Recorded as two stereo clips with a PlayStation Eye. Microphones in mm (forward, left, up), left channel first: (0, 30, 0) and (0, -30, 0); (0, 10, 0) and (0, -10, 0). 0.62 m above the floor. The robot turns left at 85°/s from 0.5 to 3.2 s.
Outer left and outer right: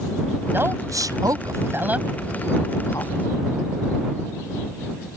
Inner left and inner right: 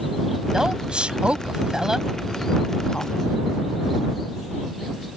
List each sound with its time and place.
0.5 s a woman speaking: 35° right (ahead or behind); by 3.1 s 70° left (ahead or behind)